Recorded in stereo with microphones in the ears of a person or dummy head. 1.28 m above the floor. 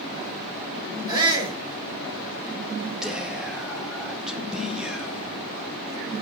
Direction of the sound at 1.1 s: 20° right (ahead or behind).